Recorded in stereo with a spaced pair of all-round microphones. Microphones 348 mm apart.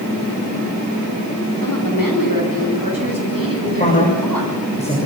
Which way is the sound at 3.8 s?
20° left (ahead or behind).